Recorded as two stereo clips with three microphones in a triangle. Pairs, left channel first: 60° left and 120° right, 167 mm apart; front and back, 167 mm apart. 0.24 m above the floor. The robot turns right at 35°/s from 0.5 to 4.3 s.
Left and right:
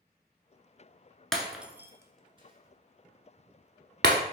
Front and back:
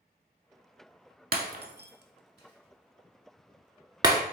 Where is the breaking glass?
145° left, 0.5 m; by 4.2 s 110° right, 0.5 m.